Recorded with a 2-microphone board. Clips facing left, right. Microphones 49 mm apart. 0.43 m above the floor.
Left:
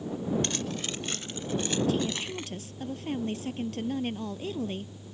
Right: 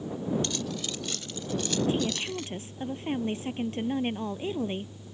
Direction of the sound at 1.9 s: 25° right (ahead or behind).